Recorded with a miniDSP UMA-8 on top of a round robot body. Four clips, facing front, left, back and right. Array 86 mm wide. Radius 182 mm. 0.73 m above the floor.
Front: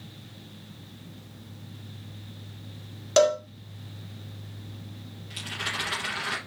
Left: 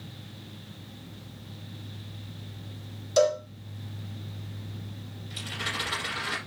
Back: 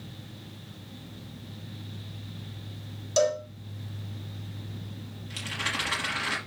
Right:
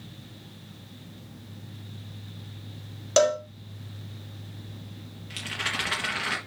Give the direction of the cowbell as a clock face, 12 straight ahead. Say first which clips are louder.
Right 1 dB, front 4 dB; 2 o'clock.